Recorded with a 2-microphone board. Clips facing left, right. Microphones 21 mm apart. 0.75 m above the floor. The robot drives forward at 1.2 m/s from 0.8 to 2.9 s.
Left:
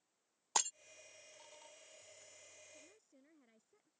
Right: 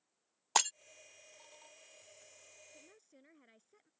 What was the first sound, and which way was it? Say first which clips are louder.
Breaking glass: right 6 dB; 35° right (ahead or behind).